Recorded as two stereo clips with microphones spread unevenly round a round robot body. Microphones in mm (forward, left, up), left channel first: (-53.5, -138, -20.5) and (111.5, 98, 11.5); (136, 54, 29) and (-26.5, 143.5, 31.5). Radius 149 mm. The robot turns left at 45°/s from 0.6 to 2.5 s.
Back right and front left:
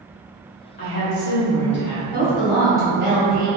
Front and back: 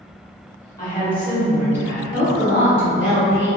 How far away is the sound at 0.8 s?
About 0.9 m.